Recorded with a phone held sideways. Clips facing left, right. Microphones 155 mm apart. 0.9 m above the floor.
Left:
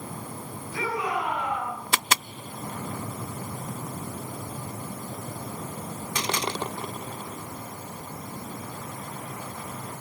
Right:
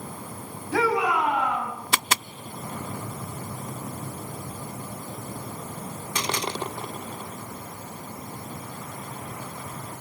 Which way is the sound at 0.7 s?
85° right.